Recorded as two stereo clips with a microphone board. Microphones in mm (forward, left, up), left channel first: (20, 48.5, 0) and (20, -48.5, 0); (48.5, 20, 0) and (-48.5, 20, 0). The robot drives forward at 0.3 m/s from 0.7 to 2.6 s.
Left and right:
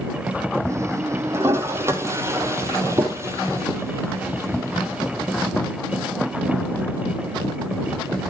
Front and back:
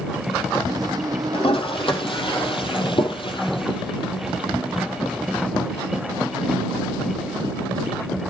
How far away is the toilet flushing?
About 3.5 m.